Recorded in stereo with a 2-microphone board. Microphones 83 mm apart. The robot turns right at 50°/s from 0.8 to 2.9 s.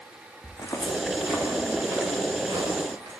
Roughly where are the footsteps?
Left.